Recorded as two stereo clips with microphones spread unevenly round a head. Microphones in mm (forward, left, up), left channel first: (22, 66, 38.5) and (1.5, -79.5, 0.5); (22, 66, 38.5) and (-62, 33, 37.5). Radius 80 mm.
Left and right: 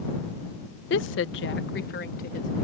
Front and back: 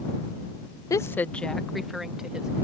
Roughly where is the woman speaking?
Left.